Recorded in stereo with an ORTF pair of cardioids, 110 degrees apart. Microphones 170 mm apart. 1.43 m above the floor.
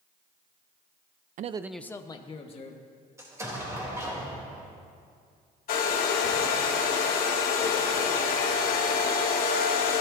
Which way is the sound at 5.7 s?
65° left.